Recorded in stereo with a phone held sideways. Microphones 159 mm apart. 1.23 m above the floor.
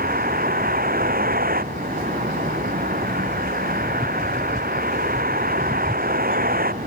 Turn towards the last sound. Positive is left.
turn(degrees=-75)  # may be behind; listen again after turning